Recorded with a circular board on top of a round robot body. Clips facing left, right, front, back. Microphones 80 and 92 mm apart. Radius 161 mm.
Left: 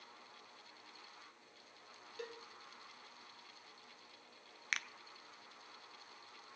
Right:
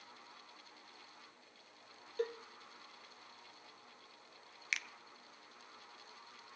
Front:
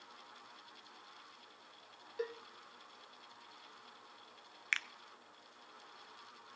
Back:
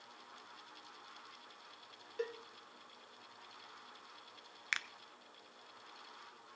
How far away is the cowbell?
About 1.3 m.